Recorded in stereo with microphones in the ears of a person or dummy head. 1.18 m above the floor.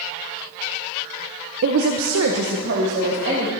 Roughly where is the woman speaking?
Right.